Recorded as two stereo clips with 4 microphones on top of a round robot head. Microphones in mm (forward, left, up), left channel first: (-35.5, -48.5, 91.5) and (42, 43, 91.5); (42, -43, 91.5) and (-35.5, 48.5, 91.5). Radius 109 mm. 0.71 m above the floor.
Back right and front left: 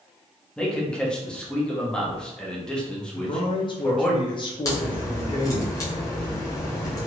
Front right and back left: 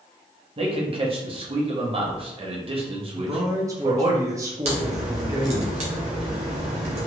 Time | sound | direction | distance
0.6 | a man speaking | 150° left | 1.0 m
3.1 | a man speaking | 170° right | 0.7 m
4.7 | a crack | 165° left | 0.7 m